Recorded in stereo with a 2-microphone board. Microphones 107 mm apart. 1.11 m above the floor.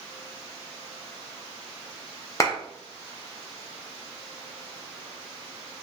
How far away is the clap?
About 0.6 m.